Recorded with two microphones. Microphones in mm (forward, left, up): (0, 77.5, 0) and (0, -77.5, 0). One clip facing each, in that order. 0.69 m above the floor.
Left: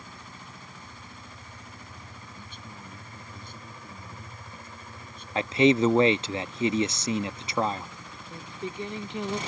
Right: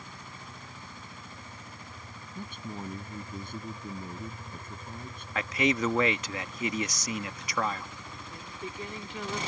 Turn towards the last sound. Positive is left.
turn(degrees=25)  # may be behind; listen again after turning